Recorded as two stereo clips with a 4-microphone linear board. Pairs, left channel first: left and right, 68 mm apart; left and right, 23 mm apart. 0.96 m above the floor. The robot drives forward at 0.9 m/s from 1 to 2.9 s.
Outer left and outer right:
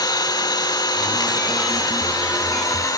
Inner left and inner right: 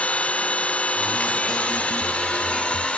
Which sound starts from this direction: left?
An engine running, at 0.0 s.